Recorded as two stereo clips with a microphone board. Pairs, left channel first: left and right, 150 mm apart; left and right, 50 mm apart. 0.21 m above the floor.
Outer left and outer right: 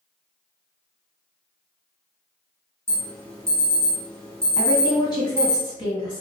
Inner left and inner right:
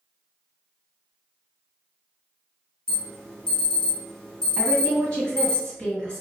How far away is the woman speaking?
About 1.7 m.